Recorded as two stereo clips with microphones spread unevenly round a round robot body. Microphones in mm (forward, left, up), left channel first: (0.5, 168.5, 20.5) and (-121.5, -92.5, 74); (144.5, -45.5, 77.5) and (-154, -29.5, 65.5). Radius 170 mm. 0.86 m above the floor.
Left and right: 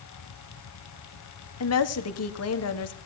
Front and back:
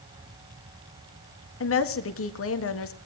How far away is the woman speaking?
About 1.8 m.